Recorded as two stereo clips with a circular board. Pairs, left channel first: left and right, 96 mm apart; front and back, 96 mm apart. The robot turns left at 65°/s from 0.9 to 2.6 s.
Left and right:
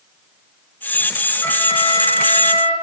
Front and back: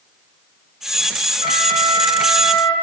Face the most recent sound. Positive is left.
turn(degrees=80)